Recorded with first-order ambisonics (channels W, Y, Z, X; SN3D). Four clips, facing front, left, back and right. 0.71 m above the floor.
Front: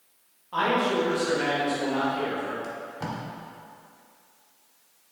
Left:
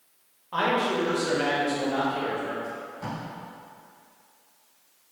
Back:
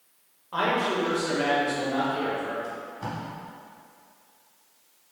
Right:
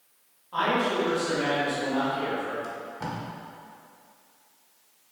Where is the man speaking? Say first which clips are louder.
Even, front 1 dB; 115° left, 1.1 m.